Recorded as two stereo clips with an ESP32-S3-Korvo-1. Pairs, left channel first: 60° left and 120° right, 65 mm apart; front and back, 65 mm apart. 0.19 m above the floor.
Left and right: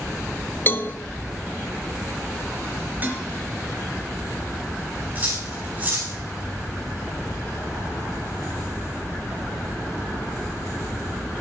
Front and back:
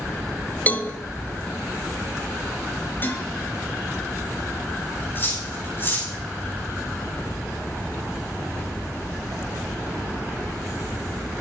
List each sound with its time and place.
0.7 s a cowbell: 45° left, 0.7 m
3.0 s dishes clattering: 60° right, 2 m
5.2 s cutlery clinking: 60° right, 8 m